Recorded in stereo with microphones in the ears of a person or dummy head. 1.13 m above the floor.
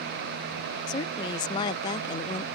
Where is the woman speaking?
20° left (ahead or behind).